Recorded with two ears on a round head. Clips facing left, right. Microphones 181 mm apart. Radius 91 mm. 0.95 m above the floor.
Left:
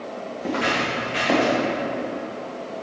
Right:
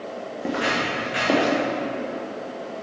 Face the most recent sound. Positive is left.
turn(degrees=-30)  # may be behind; listen again after turning